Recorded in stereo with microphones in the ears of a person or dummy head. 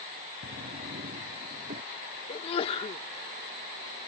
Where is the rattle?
No rattle in this recording.